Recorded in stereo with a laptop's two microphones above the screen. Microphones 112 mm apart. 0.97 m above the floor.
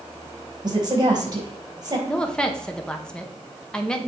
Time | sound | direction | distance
0.6 | a woman speaking | 40° right (ahead or behind) | 4 m
2.1 | a woman speaking | 10° left (ahead or behind) | 0.7 m